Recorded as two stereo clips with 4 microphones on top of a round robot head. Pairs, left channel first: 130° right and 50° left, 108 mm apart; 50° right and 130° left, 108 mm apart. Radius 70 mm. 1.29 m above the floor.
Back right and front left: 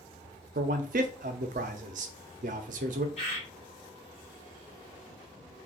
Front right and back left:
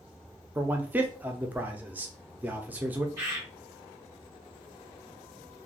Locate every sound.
0.6 s a man speaking: 55° left, 0.5 m
3.2 s a bird: 165° right, 1.8 m